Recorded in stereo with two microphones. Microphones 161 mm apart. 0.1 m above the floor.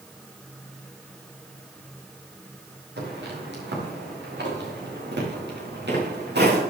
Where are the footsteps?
80° right, 5.5 m; by 6.6 s 75° right (ahead or behind), 5.5 m.